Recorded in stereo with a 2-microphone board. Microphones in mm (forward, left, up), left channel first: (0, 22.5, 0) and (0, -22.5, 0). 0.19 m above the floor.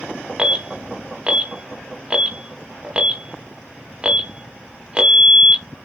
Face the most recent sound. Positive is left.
turn(degrees=-25)  # may be behind; listen again after turning